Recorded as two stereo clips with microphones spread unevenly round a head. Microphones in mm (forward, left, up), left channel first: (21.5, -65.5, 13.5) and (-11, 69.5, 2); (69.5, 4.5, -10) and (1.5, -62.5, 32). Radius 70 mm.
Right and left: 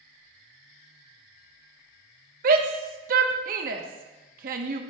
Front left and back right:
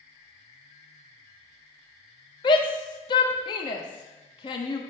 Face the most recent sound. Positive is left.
turn(degrees=85)